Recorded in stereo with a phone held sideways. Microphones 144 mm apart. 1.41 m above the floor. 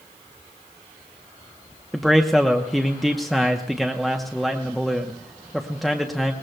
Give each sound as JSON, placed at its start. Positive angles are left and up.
{"t": 1.9, "sound": "a man speaking", "side_deg": 0, "distance_m": 0.8}